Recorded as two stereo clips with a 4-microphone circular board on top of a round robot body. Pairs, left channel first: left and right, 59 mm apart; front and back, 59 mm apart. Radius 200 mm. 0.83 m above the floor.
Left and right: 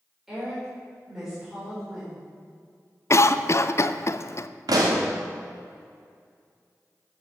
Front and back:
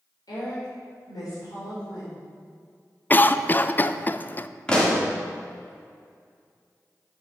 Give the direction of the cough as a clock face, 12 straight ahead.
10 o'clock.